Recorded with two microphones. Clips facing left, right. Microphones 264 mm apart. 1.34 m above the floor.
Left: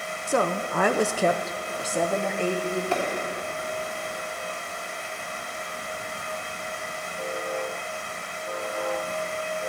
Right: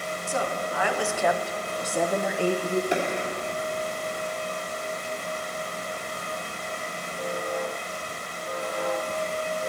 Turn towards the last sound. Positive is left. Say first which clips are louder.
# even
turn(degrees=-15)  # may be behind; listen again after turning